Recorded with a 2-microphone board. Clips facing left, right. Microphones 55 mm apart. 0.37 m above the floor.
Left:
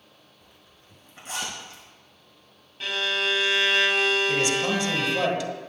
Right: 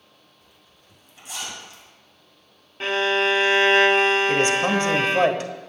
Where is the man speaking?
40° right (ahead or behind), 1.4 m.